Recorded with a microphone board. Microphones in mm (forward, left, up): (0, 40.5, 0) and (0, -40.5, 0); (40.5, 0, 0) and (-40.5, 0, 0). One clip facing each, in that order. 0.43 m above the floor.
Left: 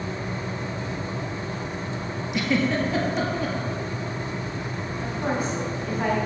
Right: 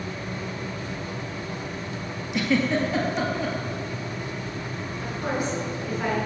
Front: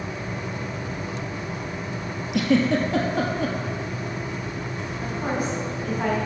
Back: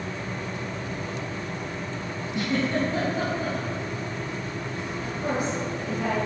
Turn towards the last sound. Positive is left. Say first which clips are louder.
# left 1 dB, front 1 dB
turn(degrees=45)